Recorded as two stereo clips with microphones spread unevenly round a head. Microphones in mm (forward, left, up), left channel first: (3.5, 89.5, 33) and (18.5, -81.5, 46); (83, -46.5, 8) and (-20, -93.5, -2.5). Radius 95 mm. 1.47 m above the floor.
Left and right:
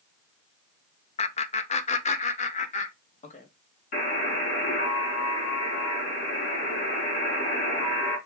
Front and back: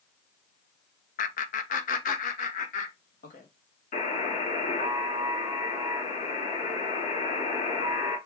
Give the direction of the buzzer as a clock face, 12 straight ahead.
10 o'clock.